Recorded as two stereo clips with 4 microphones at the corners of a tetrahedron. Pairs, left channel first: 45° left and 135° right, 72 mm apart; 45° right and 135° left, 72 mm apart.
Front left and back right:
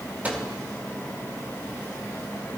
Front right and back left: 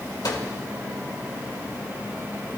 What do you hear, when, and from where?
0.2 s a microwave: 65° right, 2 m